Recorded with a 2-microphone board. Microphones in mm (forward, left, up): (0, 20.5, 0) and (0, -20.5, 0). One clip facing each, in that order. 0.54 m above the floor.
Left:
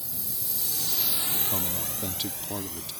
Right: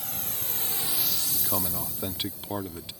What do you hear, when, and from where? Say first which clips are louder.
0.0 s a drone: right 4 dB; 60° right (ahead or behind); by 3.0 s 75° left (ahead or behind)
1.3 s a man speaking: right 1 dB; 20° right (ahead or behind)